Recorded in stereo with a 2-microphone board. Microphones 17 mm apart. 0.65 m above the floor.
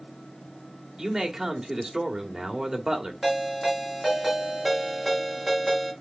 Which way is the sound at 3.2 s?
5° left (ahead or behind).